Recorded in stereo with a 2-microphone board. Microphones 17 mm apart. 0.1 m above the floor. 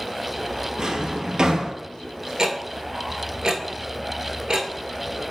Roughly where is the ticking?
Right.